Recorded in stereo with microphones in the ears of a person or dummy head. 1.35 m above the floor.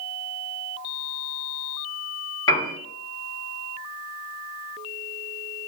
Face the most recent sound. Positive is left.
turn(degrees=20)  # may be behind; listen again after turning